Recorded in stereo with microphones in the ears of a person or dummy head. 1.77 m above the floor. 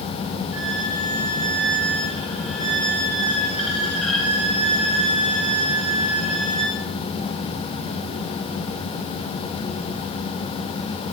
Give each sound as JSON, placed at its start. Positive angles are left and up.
{"t": 0.5, "sound": "a violin", "side_deg": 0, "distance_m": 8.5}